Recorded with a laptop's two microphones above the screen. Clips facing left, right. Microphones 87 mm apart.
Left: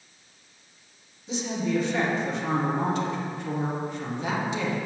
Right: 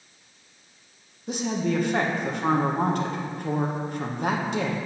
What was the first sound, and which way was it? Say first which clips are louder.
A woman speaking: right 1 dB; 55° right (ahead or behind).